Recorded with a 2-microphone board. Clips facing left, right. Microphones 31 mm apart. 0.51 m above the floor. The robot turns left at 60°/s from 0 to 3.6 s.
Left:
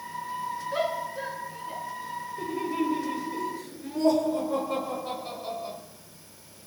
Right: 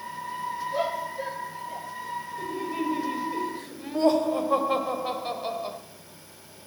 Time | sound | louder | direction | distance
0.7 | a shout | even | 70° left (ahead or behind) | 5.5 m
2.4 | laughter | left 3 dB | 25° left | 1.7 m